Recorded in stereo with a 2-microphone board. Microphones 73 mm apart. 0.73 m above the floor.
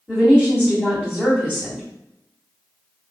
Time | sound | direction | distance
0.1 | a woman speaking | 10° left (ahead or behind) | 1.5 m